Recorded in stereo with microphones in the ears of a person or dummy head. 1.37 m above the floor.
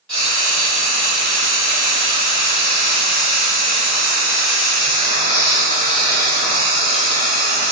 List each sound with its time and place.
0.1 s frying: 5° left (ahead or behind), 1.9 m